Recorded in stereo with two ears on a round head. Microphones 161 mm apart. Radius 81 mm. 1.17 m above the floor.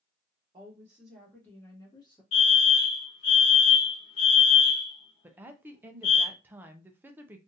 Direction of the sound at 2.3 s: 35° left (ahead or behind).